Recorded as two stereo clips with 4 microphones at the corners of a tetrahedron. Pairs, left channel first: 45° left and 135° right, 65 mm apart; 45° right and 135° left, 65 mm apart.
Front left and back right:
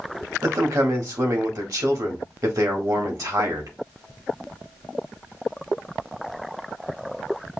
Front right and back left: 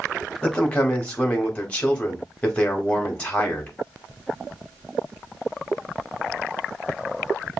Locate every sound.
0.4 s a man speaking: 115° right, 1.4 m